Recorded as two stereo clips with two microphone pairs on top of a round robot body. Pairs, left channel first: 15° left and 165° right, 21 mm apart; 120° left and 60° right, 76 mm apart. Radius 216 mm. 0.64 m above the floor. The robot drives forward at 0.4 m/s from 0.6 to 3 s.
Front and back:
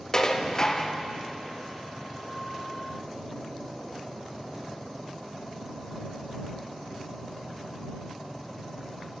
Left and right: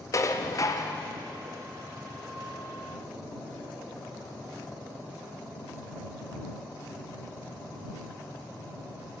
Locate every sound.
0.1 s dishes clattering: 75° left, 1.3 m; by 0.9 s 80° left, 1.3 m